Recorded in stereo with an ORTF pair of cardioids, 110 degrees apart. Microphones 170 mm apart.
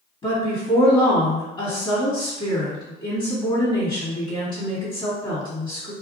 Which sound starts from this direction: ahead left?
A woman speaking, at 0.2 s.